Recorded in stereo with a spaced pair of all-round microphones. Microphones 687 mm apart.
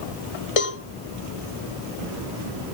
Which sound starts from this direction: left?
A cowbell, at 0.6 s.